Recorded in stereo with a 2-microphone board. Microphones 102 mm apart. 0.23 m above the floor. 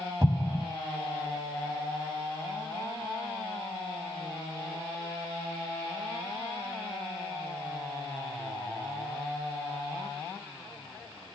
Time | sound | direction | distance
0.2 | an explosion | 25° right (ahead or behind) | 0.6 m